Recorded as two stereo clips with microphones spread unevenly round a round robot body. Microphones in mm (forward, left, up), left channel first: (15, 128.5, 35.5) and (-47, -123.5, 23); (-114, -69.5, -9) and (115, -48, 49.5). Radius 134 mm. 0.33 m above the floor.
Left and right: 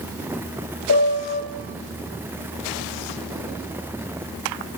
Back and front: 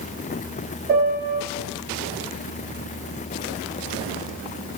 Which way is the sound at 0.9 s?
55° left.